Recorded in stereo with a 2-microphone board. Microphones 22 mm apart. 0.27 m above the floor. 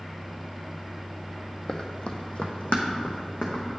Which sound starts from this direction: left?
Running footsteps, at 1.7 s.